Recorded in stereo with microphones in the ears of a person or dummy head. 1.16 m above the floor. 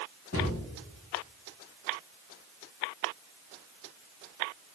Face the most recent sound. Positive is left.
turn(degrees=45)  # may be behind; listen again after turning